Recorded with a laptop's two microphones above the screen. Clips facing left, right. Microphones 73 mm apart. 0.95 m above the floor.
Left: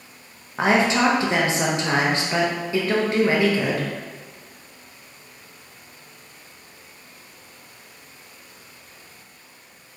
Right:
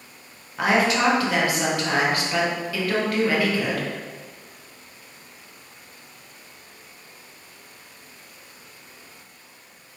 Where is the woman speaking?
25° left (ahead or behind), 0.7 m.